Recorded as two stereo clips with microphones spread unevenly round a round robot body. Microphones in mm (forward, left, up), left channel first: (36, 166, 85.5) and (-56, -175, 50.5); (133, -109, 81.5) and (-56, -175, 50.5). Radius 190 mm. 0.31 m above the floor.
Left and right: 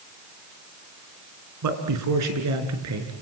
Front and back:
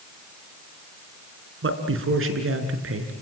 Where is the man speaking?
145° right, 3.5 m; by 3.1 s 155° right, 4.5 m.